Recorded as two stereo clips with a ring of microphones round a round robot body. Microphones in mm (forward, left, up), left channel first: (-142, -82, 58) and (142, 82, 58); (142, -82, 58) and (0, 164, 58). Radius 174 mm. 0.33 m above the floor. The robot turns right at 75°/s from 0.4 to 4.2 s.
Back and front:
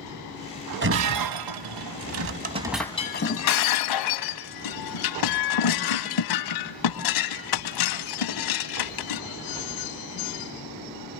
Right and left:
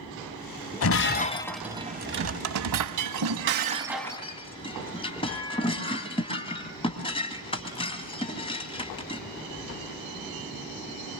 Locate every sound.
0.8 s breaking glass: 30° right, 1.5 m; by 9.2 s 135° right, 1.5 m